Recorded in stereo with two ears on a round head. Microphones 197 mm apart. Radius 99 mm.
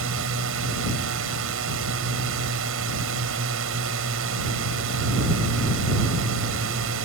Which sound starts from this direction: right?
A drone, at 0.0 s.